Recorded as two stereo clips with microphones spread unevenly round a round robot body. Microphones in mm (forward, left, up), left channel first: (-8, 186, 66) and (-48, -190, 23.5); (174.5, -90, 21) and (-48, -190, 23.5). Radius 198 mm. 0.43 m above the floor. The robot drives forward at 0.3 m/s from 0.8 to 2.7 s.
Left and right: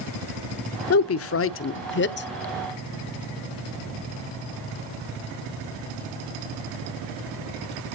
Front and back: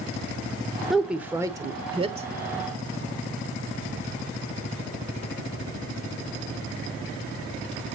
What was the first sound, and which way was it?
A woman speaking, 115° left.